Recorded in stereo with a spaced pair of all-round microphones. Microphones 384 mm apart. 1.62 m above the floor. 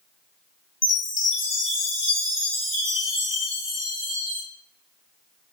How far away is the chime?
About 1.3 m.